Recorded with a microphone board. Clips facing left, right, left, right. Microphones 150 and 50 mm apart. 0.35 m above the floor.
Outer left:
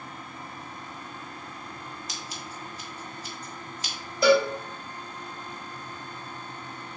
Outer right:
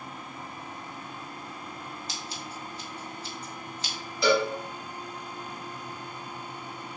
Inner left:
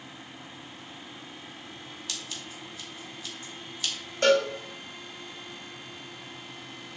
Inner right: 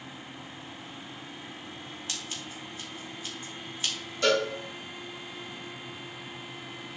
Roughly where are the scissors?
Right.